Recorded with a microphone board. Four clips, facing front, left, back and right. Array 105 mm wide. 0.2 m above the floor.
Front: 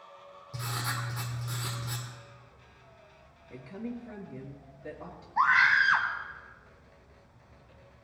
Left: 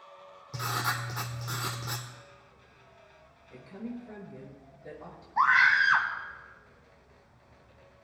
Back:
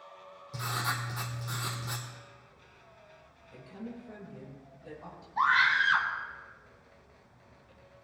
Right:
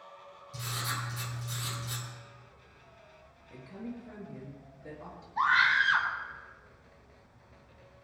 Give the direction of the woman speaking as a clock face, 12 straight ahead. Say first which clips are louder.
Left 2 dB, front 4 dB; 12 o'clock.